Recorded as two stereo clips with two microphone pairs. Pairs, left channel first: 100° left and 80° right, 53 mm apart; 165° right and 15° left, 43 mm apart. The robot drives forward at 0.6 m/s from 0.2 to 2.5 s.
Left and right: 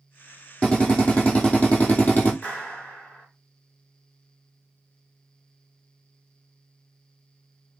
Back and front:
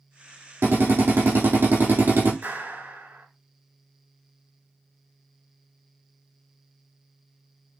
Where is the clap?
40° left, 4 m.